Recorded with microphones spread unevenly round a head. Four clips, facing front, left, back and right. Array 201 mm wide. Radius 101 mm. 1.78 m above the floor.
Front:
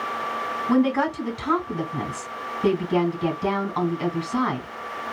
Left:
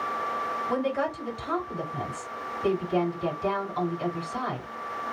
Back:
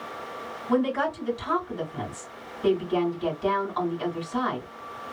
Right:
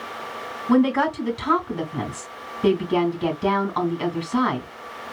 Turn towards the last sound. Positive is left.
turn(degrees=-65)